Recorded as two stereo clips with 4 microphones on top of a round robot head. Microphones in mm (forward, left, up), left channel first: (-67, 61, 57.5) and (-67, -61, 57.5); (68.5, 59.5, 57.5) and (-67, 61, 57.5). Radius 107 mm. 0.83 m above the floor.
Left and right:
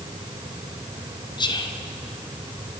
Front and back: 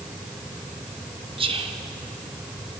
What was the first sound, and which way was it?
Whispering, 135° left.